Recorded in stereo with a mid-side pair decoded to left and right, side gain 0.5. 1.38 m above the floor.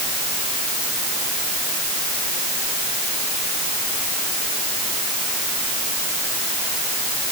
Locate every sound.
Only background noise.